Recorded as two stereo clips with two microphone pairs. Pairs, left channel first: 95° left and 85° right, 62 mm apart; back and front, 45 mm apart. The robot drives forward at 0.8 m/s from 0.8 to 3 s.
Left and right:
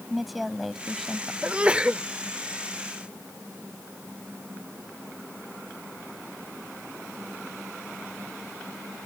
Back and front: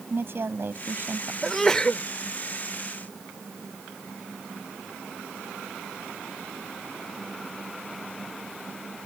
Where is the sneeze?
80° right; by 2.0 s 145° right.